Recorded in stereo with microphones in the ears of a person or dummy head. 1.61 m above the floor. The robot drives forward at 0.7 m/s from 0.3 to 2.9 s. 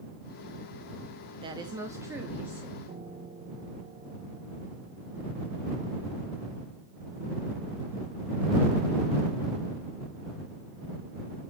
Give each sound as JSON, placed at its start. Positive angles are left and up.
{"t": 1.4, "sound": "a woman speaking", "side_deg": -30, "distance_m": 0.5}
{"t": 2.9, "sound": "a piano", "side_deg": -20, "distance_m": 0.9}